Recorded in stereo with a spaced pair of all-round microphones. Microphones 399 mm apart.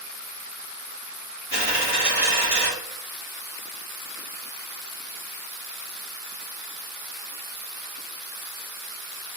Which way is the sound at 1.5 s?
5° right (ahead or behind).